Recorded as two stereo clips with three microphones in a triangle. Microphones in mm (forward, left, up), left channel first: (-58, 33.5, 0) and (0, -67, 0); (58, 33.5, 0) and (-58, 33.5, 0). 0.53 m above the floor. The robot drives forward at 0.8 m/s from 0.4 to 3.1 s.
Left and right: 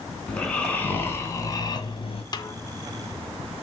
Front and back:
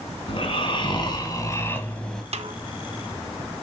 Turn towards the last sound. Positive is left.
turn(degrees=175)